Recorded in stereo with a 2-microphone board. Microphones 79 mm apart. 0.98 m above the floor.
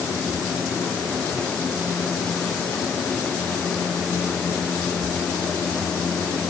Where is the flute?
I don't hear a flute.